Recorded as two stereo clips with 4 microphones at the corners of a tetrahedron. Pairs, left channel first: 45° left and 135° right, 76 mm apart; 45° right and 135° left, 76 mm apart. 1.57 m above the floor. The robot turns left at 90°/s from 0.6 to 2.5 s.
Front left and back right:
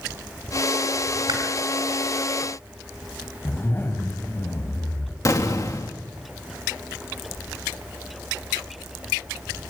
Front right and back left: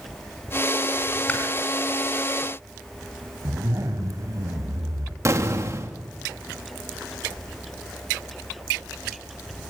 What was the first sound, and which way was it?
Chewing, 115° right.